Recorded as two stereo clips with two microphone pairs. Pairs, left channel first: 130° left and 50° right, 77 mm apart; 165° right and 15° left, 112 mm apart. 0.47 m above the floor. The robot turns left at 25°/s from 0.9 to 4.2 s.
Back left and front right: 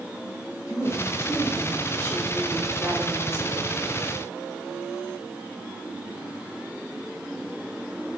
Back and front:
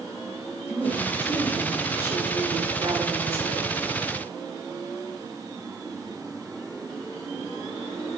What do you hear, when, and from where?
0.7 s a woman speaking: 90° left, 1.8 m; by 3.7 s 20° left, 1.8 m